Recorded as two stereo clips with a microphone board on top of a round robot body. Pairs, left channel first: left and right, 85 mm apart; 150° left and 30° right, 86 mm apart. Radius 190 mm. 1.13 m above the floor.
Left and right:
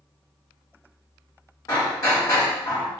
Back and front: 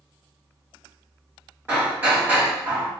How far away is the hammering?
About 1.2 m.